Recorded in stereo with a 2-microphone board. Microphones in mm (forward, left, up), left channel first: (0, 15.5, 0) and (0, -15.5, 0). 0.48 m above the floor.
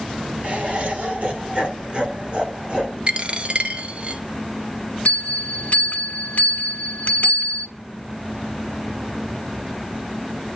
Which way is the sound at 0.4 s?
45° right (ahead or behind).